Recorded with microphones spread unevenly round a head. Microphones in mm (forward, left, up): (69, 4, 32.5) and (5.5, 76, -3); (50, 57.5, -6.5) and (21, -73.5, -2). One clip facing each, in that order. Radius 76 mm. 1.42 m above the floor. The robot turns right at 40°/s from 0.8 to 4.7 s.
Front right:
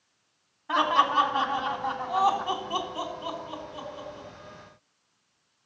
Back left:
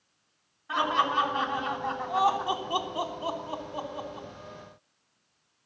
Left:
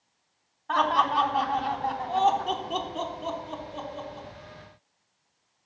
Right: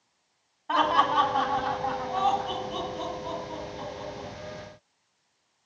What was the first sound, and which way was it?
Laughter, 25° right.